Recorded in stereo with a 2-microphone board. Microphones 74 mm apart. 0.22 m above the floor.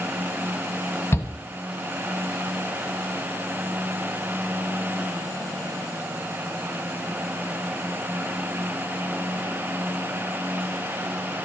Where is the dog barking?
I don't hear a dog barking.